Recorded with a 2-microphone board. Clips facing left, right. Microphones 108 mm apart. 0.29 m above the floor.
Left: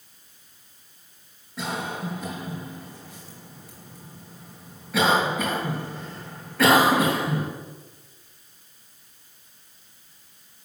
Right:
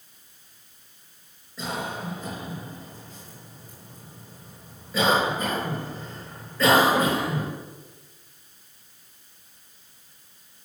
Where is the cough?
70° left (ahead or behind), 4 m.